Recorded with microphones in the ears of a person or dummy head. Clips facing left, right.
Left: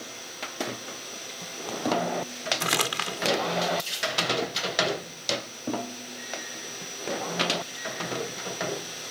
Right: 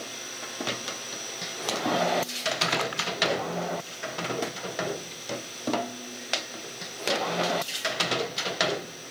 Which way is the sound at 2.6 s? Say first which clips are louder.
Right 1 dB; 45° left (ahead or behind).